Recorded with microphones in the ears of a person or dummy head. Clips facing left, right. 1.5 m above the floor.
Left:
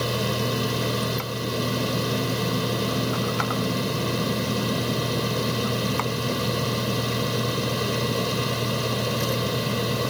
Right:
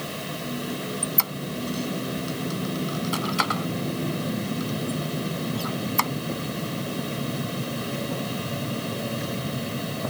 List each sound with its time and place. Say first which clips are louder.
0.0 s a fan: left 7 dB; 75° left (ahead or behind)
1.0 s a squeak: left 4 dB; 55° right (ahead or behind)